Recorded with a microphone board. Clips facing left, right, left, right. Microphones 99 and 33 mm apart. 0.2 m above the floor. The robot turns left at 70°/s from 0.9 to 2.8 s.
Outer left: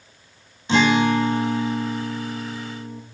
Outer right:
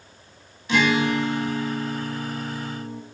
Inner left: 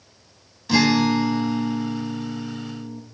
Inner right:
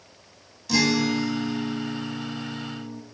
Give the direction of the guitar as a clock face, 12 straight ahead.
8 o'clock.